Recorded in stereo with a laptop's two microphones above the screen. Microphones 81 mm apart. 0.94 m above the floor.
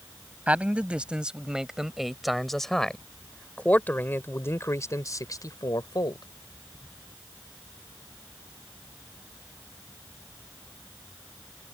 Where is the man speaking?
15° right (ahead or behind); by 6.3 s 60° left (ahead or behind).